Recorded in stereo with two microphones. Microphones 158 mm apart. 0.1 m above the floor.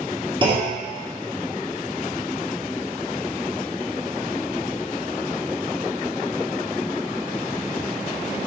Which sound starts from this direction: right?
A clunk, at 0.4 s.